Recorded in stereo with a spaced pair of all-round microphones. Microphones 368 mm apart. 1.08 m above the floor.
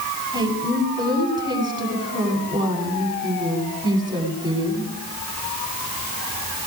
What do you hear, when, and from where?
0.3 s a woman speaking: 10° right (ahead or behind), 9.5 m